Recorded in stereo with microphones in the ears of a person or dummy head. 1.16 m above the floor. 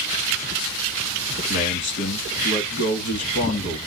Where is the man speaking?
65° left (ahead or behind), 1.6 m.